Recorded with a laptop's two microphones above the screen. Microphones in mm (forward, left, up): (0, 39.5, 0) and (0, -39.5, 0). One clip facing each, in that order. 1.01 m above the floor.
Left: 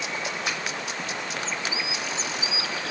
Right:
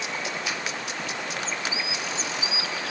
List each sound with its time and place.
0.5 s a finger snap: 55° left (ahead or behind), 4.5 m